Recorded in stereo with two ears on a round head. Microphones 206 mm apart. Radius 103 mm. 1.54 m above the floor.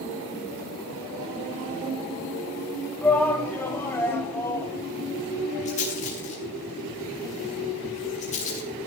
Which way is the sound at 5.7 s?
30° left (ahead or behind).